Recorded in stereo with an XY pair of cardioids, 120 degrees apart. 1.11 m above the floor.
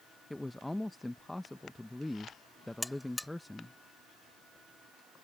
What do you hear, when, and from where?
0.3 s a man speaking: 10° left
2.8 s a buzzer: 10° left